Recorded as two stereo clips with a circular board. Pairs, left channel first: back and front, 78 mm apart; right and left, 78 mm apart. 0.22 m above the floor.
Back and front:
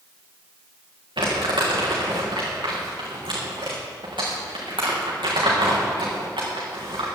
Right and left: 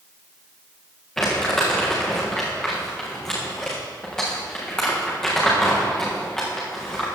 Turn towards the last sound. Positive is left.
turn(degrees=-10)